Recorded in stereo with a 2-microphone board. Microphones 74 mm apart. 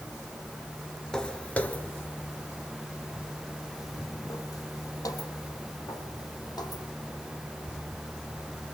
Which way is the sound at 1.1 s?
10° left (ahead or behind).